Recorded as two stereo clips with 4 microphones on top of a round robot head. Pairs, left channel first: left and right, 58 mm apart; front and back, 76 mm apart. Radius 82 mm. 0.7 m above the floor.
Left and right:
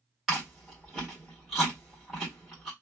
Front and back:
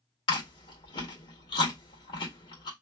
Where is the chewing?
5° right, 2.0 m.